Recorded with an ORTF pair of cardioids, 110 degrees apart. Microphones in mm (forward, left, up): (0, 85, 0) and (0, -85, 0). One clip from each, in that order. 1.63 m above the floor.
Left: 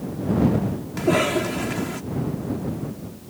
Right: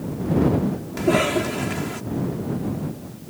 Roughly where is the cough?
Ahead.